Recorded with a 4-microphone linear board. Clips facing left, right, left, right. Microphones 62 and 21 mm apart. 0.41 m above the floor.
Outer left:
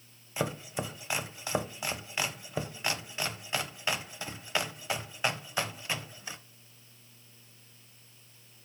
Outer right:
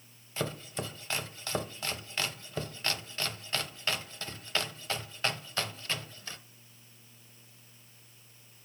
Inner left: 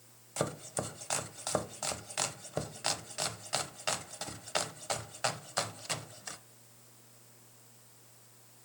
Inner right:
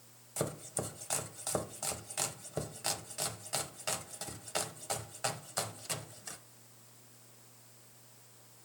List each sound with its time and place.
0.4 s chopping: 15° left (ahead or behind), 0.6 m